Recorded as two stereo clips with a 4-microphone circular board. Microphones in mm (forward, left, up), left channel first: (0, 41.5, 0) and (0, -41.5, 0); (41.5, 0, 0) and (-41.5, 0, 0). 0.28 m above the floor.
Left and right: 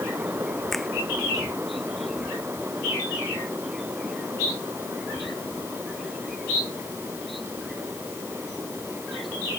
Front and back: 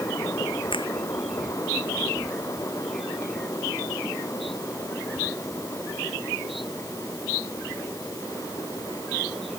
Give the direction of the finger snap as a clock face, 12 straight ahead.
12 o'clock.